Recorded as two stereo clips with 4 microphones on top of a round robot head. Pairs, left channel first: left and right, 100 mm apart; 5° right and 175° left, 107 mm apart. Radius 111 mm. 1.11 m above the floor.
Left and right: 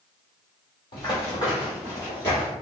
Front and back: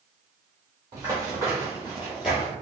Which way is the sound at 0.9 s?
125° left.